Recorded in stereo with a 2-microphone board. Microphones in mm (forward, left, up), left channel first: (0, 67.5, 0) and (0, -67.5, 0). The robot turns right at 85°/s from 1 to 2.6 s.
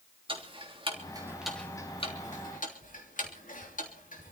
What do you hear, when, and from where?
0.3 s ticking: 40° right (ahead or behind), 3 m; by 4.3 s 80° left, 3 m